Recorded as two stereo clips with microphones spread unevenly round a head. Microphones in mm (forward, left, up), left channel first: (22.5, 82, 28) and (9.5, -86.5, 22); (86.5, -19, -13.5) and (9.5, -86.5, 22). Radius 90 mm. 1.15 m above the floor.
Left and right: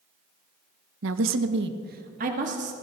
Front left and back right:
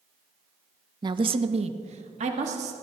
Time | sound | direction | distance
1.0 | a woman speaking | 90° right | 0.8 m